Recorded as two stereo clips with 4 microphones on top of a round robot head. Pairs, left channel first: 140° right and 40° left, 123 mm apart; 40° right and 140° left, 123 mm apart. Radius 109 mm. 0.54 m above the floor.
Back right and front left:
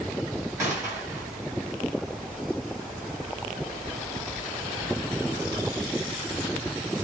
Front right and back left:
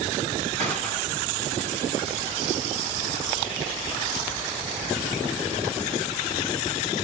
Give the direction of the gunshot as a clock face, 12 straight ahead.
8 o'clock.